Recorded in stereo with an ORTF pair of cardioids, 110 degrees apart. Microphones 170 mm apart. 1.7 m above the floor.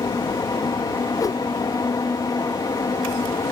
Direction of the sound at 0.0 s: 25° left.